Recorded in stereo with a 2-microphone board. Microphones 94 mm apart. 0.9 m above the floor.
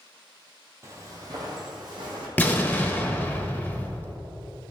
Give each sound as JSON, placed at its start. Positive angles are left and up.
{"t": 0.8, "sound": "footsteps", "side_deg": -30, "distance_m": 2.0}
{"t": 2.4, "sound": "an explosion", "side_deg": 20, "distance_m": 1.2}